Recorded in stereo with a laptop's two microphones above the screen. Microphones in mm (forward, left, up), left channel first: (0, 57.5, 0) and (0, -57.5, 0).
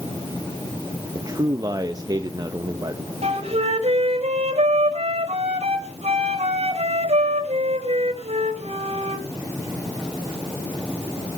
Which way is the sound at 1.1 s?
35° right (ahead or behind).